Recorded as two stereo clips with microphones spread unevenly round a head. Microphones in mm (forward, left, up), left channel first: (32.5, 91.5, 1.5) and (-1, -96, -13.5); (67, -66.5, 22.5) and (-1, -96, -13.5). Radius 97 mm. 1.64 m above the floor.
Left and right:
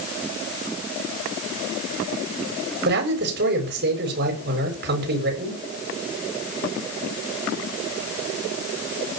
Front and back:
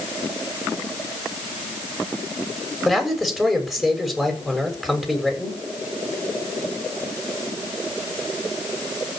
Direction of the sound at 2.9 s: 65° right.